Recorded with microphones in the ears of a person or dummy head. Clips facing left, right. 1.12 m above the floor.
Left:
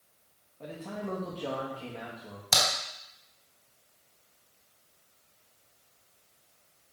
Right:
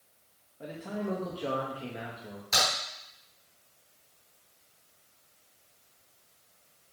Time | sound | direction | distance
0.6 | a man speaking | 15° right (ahead or behind) | 1.0 m
2.5 | a crack | 80° left | 3.5 m